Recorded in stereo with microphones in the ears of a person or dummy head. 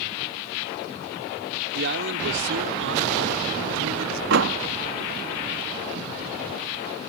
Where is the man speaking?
60° right (ahead or behind); by 4.2 s 75° right (ahead or behind).